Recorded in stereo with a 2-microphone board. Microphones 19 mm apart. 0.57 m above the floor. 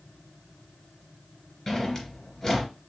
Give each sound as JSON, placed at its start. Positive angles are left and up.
{"t": 1.7, "sound": "a drawer", "side_deg": 20, "distance_m": 2.5}